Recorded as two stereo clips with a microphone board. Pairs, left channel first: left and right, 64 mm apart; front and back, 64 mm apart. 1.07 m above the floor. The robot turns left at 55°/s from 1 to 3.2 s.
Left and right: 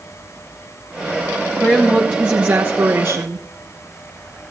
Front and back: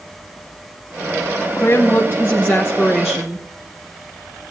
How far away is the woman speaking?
About 0.8 m.